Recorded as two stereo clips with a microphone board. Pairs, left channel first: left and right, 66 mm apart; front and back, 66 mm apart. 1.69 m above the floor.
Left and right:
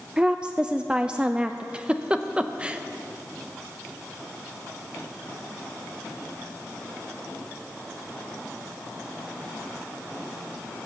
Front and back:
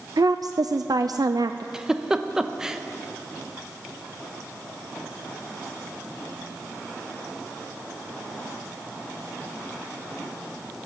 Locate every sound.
0.2 s a woman speaking: 165° right, 0.5 m
1.7 s a giggle: 125° right, 0.8 m